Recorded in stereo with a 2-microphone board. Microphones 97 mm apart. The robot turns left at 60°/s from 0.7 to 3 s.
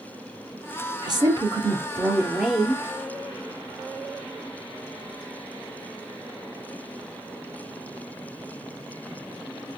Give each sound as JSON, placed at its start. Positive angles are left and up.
{"t": 1.0, "sound": "a woman speaking", "azimuth_deg": -85, "distance_m": 1.6}